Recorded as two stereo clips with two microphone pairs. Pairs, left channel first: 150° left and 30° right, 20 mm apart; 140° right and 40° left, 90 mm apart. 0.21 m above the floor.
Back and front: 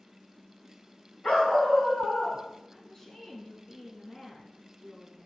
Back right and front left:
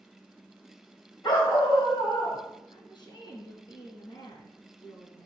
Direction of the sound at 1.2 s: Straight behind.